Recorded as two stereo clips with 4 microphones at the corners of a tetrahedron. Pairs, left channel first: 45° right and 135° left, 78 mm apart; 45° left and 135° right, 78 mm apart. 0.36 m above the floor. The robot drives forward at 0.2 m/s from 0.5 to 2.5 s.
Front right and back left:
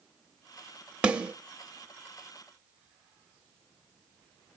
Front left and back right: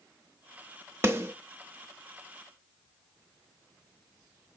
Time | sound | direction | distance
1.0 | a snare drum | 160° right | 0.9 m